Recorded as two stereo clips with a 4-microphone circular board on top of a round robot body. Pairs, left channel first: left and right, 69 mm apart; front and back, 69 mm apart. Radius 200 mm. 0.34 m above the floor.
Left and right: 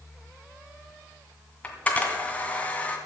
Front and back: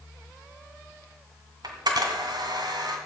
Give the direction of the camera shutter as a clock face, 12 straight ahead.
7 o'clock.